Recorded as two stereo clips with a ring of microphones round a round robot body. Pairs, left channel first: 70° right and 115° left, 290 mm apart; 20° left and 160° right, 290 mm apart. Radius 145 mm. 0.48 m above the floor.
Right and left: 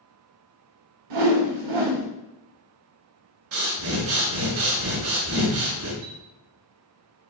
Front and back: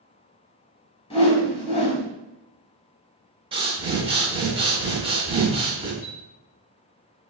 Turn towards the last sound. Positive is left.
turn(degrees=95)